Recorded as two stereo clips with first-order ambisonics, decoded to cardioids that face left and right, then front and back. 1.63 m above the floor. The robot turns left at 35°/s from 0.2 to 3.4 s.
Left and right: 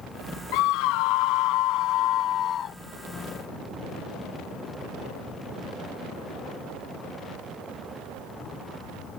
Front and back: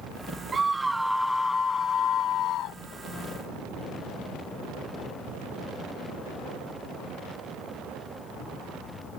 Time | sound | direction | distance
0.5 | a scream | 110° left | ?